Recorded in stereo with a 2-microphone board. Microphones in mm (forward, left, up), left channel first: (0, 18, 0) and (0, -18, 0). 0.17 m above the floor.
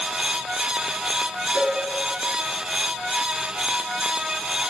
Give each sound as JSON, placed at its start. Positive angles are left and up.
{"t": 1.6, "sound": "a cowbell", "side_deg": 40, "distance_m": 1.8}